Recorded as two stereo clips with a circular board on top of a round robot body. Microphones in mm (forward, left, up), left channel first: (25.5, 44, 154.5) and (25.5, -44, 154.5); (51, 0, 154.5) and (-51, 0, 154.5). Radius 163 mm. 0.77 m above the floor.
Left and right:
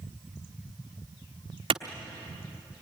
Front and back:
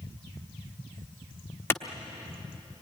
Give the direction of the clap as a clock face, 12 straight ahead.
2 o'clock.